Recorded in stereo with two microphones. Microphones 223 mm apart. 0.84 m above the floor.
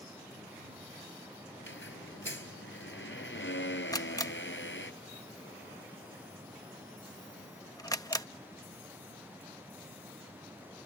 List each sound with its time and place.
1.6 s a squeak: 65° left (ahead or behind)
3.9 s a camera shutter: 15° left (ahead or behind)